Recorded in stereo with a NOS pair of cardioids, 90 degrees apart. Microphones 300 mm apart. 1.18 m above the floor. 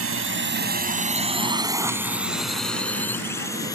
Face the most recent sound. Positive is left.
turn(degrees=10)